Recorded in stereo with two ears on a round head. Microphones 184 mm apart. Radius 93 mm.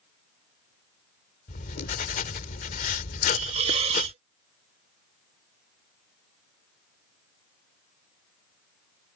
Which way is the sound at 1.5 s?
40° left (ahead or behind).